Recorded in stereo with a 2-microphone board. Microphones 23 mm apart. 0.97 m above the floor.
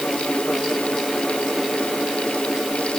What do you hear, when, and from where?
Only background noise.